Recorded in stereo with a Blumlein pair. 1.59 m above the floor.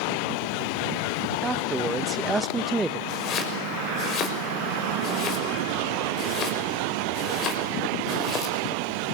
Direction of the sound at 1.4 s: 15° right.